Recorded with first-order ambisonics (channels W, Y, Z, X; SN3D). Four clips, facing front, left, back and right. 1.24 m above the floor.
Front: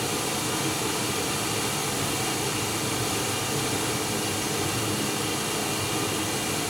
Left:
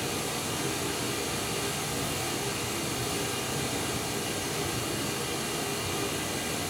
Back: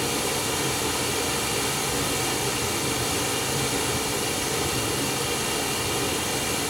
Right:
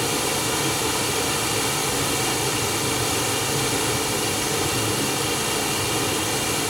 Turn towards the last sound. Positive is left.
turn(degrees=-100)